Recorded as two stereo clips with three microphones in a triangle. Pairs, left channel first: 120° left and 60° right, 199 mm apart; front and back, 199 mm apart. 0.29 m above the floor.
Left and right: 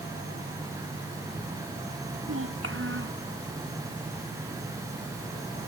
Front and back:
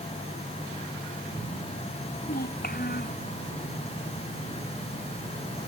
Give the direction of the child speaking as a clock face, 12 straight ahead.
2 o'clock.